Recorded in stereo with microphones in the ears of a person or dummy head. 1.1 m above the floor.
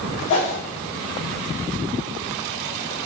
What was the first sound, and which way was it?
A whoosh, 65° left (ahead or behind).